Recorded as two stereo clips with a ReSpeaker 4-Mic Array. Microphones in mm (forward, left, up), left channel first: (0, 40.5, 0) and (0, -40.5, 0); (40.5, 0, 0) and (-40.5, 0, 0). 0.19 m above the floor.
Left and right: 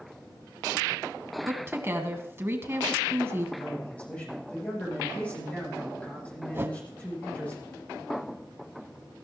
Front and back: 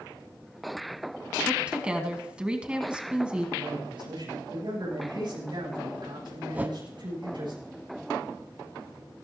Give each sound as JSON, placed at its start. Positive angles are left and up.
{"t": 1.4, "sound": "a woman speaking", "azimuth_deg": -110, "distance_m": 1.8}
{"t": 3.6, "sound": "a man speaking", "azimuth_deg": 165, "distance_m": 9.0}
{"t": 6.5, "sound": "a whoosh", "azimuth_deg": -125, "distance_m": 0.7}